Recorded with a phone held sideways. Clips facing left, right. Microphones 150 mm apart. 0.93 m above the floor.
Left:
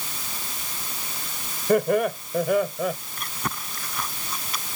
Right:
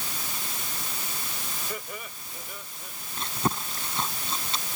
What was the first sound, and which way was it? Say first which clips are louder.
Laughter: left 23 dB; 55° left (ahead or behind).